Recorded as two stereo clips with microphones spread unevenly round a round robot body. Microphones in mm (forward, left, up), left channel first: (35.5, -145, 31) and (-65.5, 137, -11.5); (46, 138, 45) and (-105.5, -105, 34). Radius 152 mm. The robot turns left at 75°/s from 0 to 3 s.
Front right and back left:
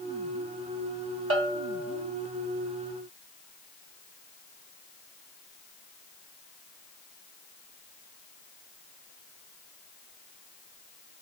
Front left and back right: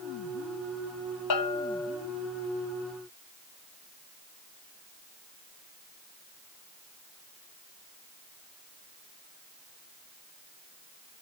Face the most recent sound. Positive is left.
turn(degrees=-65)